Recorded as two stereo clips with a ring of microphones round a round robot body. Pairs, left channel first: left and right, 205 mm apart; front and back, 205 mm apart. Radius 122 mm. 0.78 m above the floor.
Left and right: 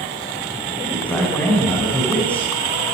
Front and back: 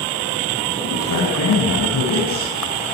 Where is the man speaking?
5° left, 9.5 m.